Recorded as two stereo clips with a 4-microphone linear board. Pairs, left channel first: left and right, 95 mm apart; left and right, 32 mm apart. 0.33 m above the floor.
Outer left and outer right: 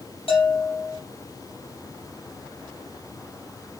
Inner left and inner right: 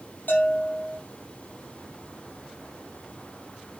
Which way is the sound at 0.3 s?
70° left (ahead or behind).